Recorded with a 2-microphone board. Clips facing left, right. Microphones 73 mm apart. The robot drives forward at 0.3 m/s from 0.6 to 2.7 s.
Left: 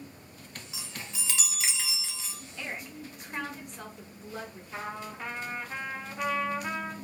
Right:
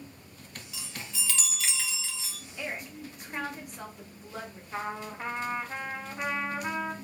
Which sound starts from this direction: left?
A chime, at 0.7 s.